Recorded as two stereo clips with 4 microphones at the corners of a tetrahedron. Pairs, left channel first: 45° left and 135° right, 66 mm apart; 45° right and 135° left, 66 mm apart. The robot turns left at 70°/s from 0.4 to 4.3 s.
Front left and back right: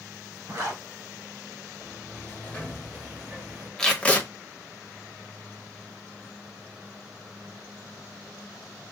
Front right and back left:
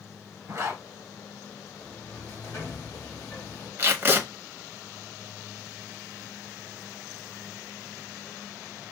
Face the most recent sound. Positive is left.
turn(degrees=90)